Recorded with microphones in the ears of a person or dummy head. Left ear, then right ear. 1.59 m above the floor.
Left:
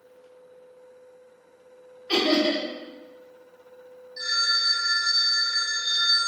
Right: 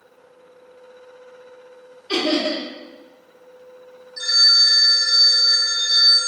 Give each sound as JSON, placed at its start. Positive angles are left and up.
{"t": 2.1, "sound": "laughter", "side_deg": 20, "distance_m": 1.5}
{"t": 4.2, "sound": "a phone ringing", "side_deg": -10, "distance_m": 1.2}